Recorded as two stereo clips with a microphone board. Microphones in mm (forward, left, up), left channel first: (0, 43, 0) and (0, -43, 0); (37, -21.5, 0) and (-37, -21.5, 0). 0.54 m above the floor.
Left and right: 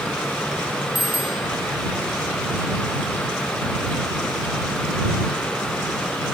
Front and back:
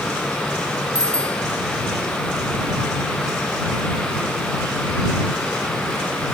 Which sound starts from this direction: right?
A bicycle bell, at 0.9 s.